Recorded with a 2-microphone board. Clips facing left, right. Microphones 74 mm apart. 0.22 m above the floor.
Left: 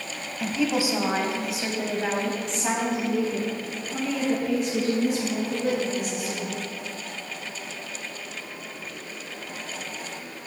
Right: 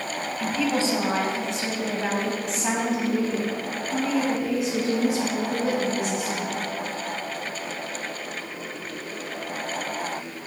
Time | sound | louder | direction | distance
0.4 | a woman speaking | even | 15° left (ahead or behind) | 1.0 m